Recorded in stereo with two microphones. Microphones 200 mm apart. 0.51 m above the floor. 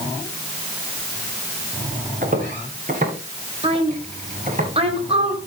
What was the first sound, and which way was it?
Footsteps, 45° right (ahead or behind).